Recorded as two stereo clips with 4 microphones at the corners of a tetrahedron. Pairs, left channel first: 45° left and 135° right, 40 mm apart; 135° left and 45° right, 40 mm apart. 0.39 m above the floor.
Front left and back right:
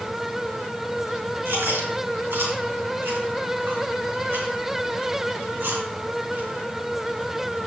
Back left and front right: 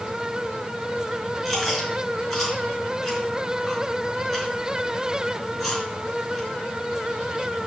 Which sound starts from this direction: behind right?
Chewing, at 1.4 s.